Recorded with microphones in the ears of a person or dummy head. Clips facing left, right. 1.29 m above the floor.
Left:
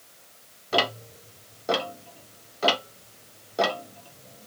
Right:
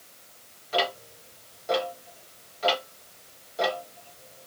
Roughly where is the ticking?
Left.